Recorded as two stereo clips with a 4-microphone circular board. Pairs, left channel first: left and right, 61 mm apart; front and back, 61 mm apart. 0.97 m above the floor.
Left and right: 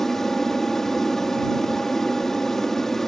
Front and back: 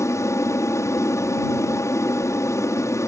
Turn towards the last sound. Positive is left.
turn(degrees=10)